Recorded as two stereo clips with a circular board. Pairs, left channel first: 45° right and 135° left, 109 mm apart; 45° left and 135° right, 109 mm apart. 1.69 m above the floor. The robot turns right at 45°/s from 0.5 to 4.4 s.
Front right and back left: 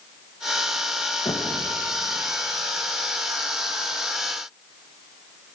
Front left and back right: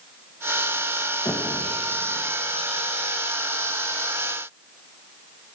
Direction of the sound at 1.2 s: 5° right.